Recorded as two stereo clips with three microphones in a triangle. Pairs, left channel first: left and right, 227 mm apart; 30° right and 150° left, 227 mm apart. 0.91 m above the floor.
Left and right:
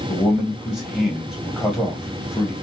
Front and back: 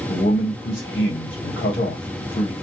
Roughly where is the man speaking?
Ahead.